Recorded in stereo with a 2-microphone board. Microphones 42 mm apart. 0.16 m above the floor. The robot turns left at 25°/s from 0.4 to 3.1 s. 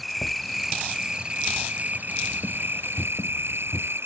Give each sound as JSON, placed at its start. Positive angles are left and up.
{"t": 0.0, "sound": "an insect", "azimuth_deg": 0}